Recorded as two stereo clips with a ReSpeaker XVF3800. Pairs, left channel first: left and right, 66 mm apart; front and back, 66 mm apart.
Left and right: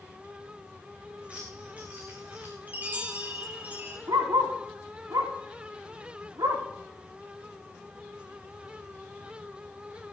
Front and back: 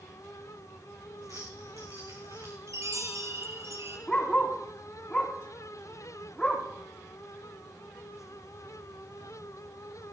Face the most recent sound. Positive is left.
turn(degrees=-80)